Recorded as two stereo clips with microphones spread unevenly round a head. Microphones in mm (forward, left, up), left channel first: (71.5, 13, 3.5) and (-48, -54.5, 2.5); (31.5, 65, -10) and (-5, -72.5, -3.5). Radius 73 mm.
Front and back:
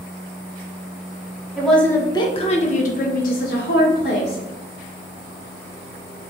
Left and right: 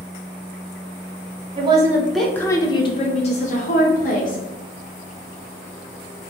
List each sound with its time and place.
1.6 s a woman speaking: 65° right, 0.6 m; by 4.4 s 50° left, 1.4 m